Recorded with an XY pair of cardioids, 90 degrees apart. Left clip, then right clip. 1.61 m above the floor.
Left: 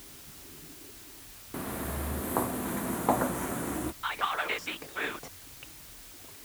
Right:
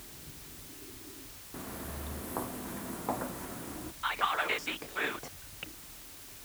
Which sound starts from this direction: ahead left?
Footsteps, at 1.5 s.